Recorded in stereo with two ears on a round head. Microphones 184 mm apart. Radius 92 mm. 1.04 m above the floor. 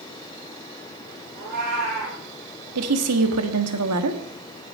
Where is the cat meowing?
40° right (ahead or behind), 7 m.